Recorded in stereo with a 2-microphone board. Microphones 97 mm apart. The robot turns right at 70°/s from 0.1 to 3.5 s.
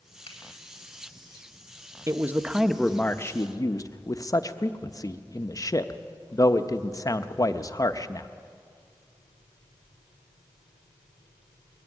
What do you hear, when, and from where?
0.3 s a finger snap: 75° left (ahead or behind), 4 m; by 0.4 s 70° left (ahead or behind), 4 m
2.1 s a man speaking: 30° right (ahead or behind), 0.8 m; by 8.3 s 40° left (ahead or behind), 0.8 m